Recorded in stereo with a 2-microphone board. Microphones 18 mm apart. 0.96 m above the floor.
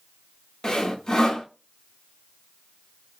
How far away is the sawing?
About 0.6 m.